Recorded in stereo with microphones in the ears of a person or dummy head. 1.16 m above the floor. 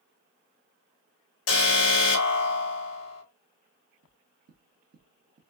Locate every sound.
1.5 s an alarm: 65° left (ahead or behind), 1.9 m
4.0 s knocking: 50° right (ahead or behind), 1.2 m